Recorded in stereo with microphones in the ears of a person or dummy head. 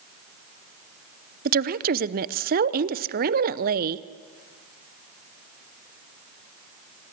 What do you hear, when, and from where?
1.4 s a woman speaking: 45° right (ahead or behind), 0.7 m